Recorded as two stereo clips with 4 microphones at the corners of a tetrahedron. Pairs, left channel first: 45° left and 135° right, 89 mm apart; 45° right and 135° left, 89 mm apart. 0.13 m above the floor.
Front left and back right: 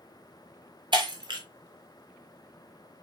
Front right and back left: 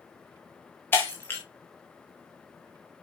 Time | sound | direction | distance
0.9 | breaking glass | 110° right | 3 m